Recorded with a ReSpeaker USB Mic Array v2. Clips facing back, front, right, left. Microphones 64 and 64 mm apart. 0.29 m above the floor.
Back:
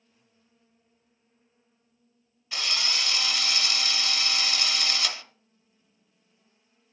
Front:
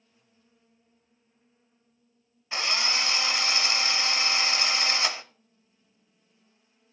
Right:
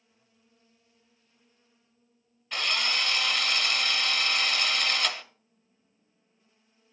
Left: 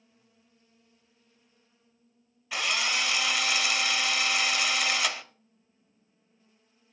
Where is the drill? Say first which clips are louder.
Front 3 dB, even; 15° left, 0.8 m.